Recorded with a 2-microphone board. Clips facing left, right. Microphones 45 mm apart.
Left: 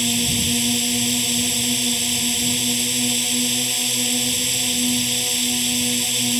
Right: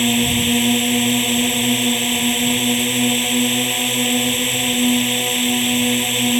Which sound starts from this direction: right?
A drone, at 0.0 s.